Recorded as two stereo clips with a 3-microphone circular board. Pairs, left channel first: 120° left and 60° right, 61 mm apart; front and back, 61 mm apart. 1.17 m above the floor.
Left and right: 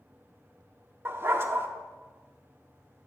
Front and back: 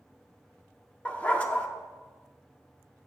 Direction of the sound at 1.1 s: 55° right.